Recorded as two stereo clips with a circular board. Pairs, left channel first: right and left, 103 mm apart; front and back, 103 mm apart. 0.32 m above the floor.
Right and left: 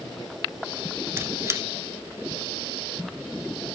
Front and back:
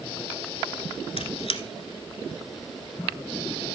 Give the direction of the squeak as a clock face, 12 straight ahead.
11 o'clock.